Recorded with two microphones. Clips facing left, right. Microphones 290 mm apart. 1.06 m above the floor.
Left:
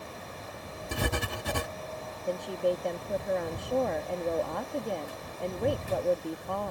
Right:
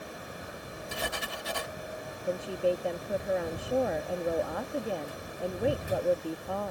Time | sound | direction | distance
0.9 | writing | 55° left (ahead or behind) | ?
2.3 | a woman speaking | 5° right (ahead or behind) | ?